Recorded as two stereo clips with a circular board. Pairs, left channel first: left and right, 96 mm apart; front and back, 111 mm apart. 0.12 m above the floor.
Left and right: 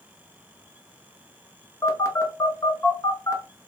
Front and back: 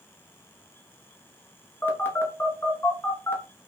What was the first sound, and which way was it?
A phone buzzing, 55° left.